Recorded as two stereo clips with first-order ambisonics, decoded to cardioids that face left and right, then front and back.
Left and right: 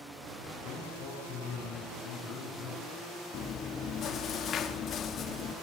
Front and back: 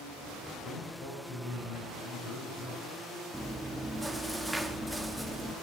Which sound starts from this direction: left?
Chewing, at 3.3 s.